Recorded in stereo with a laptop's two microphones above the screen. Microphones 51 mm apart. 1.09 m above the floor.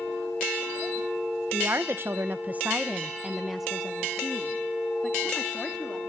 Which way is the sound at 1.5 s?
50° right (ahead or behind).